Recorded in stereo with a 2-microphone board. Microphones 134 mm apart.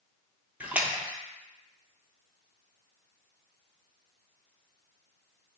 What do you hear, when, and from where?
0.6 s a splash: 10° right (ahead or behind), 0.6 m